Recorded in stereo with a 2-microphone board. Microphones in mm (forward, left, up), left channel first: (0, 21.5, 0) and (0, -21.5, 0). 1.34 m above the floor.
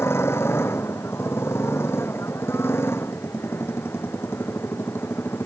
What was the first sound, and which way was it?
A motorcycle, 85° left.